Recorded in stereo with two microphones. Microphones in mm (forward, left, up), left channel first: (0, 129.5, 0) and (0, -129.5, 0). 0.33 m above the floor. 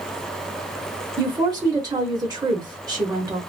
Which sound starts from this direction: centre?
A woman speaking, at 1.2 s.